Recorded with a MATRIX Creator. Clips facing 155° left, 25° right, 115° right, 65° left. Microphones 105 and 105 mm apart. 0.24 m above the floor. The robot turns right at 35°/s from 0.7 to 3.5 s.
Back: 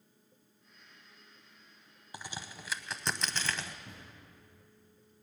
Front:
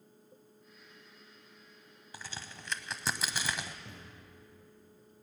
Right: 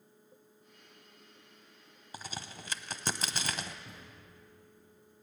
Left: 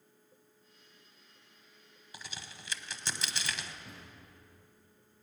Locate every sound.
2.1 s a crack: 140° right, 0.7 m; by 3.8 s 95° right, 0.7 m
3.9 s a thud: 20° right, 6.5 m